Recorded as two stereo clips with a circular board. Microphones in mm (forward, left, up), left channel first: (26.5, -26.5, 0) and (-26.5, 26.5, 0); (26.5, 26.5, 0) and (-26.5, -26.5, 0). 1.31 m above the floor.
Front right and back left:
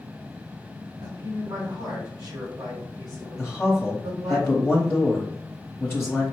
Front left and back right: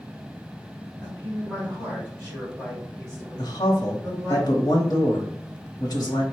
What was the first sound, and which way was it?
A man speaking, 140° left.